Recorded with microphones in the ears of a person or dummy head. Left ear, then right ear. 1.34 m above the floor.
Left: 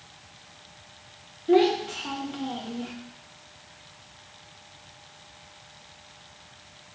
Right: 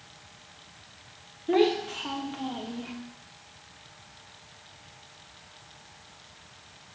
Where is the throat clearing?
I don't hear throat clearing.